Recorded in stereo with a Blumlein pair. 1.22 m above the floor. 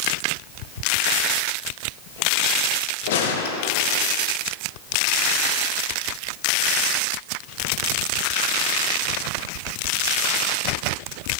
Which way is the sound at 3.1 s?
55° left.